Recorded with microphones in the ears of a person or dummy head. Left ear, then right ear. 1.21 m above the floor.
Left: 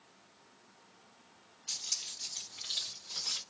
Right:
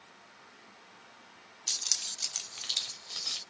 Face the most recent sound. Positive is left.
turn(degrees=-10)  # may be behind; listen again after turning